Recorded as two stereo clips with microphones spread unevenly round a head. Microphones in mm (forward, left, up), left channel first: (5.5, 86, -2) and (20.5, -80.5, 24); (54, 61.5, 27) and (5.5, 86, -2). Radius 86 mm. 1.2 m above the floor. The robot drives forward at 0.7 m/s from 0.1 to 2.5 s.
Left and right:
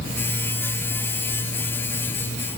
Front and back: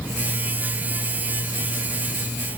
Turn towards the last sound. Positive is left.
No sound to turn to.